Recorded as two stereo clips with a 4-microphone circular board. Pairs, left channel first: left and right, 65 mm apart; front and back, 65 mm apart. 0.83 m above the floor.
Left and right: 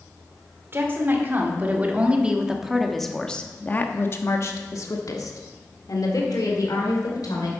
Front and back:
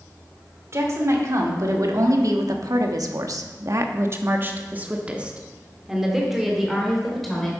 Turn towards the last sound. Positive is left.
turn(degrees=85)